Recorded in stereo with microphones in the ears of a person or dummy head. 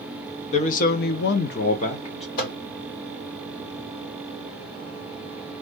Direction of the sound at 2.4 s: 55° left (ahead or behind).